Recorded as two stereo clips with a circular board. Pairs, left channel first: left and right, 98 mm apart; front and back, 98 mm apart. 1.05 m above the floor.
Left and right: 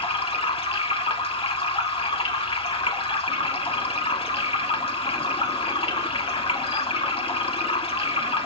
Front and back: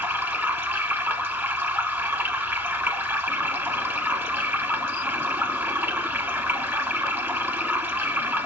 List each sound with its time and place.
0.0 s running water: 110° left, 1.5 m